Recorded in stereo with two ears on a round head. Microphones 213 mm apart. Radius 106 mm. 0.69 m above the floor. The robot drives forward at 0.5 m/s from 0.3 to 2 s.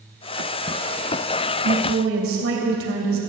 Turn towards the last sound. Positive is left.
turn(degrees=-60)  # may be behind; listen again after turning